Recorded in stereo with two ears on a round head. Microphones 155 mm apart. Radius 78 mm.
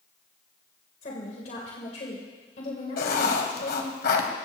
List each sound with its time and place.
1.0 s a woman speaking: 40° left (ahead or behind), 2.5 m
3.0 s writing: 55° left (ahead or behind), 2.0 m